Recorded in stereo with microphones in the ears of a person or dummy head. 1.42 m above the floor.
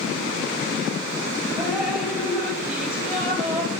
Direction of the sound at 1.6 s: 5° right (ahead or behind).